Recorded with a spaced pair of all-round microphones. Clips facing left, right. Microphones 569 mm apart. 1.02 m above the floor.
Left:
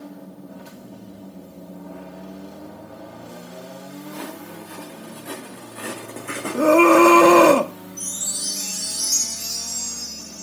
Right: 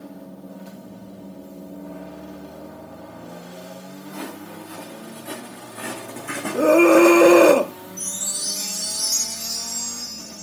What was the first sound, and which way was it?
Footsteps, 5° right (ahead or behind).